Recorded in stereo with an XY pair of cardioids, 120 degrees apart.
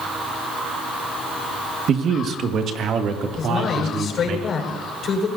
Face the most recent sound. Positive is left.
turn(degrees=50)